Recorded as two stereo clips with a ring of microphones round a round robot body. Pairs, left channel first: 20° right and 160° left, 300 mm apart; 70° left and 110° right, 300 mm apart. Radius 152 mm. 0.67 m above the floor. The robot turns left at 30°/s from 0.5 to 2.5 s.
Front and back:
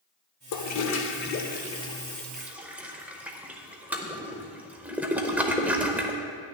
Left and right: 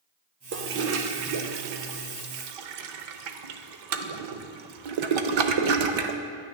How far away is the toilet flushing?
About 0.7 m.